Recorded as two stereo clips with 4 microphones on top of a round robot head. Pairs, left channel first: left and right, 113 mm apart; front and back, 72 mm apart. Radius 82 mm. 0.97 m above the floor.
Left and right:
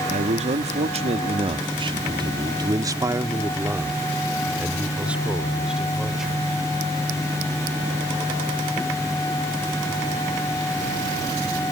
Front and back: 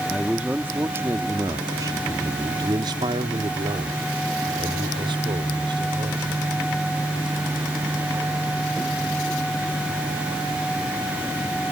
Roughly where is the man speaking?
Right.